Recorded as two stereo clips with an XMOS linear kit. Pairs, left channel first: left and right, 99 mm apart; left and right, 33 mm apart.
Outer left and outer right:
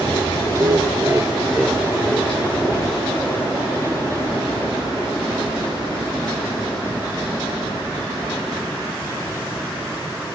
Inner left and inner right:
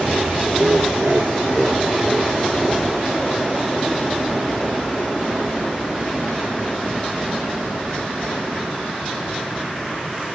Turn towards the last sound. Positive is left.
turn(degrees=30)  # may be behind; listen again after turning